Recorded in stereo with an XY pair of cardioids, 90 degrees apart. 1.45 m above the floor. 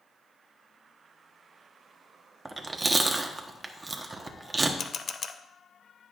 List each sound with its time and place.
2.5 s chewing: 30° right, 1.1 m
4.8 s a camera shutter: 55° left, 0.7 m